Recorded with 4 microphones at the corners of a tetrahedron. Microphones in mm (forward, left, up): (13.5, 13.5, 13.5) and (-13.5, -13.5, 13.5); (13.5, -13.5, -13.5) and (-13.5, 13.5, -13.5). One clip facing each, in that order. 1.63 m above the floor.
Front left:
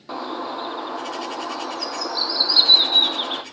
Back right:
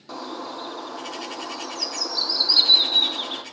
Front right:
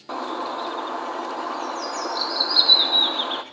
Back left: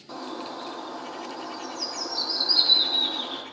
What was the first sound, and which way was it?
A bird, 15° right.